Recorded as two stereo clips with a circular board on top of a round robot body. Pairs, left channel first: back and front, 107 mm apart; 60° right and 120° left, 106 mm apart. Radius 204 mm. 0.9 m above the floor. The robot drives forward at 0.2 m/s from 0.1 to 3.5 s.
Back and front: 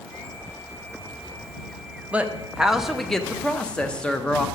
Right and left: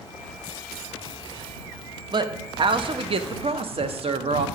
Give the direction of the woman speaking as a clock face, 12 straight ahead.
9 o'clock.